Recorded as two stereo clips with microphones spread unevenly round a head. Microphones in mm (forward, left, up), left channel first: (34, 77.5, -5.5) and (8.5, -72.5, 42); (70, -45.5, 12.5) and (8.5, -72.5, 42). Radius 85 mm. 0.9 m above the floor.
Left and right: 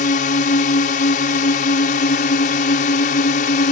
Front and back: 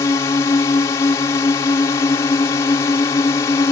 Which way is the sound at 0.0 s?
60° left.